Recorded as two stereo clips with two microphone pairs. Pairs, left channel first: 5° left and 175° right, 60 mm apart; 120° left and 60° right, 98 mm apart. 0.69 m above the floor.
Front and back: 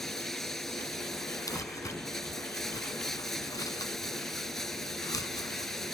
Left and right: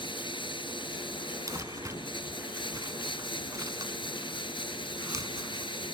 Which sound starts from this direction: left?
Running water, at 0.0 s.